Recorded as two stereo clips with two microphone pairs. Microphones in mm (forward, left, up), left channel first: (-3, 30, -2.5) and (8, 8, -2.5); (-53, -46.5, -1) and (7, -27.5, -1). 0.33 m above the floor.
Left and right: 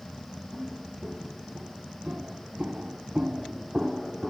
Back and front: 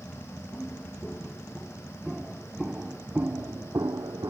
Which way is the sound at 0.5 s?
85° right.